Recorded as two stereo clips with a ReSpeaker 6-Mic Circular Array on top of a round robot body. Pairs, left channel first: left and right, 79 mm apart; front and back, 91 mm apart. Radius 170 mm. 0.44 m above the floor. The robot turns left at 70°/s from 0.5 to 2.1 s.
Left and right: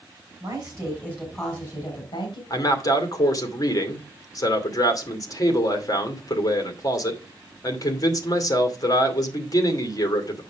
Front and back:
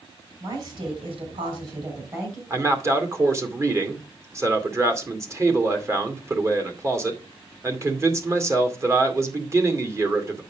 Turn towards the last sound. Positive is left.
turn(degrees=125)